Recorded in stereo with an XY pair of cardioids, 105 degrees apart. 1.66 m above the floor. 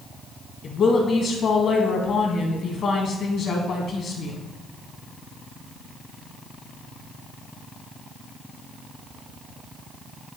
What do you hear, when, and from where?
0.6 s a woman speaking: 55° left, 1.7 m